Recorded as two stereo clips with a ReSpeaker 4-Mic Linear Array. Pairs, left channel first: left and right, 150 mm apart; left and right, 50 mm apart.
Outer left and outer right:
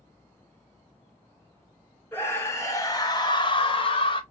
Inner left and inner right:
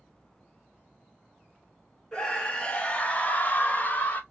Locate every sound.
2.1 s a scream: 15° left (ahead or behind), 1.4 m; by 4.2 s 35° left (ahead or behind), 0.8 m